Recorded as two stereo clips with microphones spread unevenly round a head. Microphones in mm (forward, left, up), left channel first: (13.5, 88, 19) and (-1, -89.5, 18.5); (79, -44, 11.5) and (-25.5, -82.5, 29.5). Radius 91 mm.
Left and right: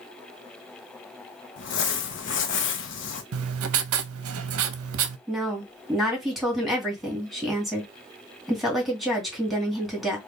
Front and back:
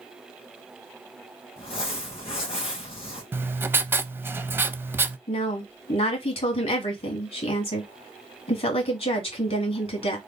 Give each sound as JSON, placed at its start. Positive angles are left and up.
{"t": 1.6, "sound": "crumpling", "azimuth_deg": 70, "distance_m": 0.8}
{"t": 3.3, "sound": "writing", "azimuth_deg": -90, "distance_m": 0.6}
{"t": 5.3, "sound": "a woman speaking", "azimuth_deg": -5, "distance_m": 2.0}